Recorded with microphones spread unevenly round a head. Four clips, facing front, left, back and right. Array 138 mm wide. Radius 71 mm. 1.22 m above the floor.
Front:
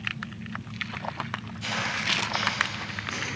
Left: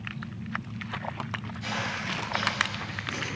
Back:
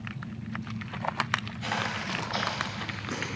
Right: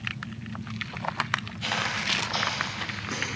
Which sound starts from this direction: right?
Footsteps, at 1.6 s.